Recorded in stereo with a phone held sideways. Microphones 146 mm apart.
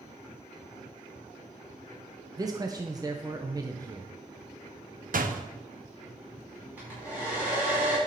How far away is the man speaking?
About 0.7 m.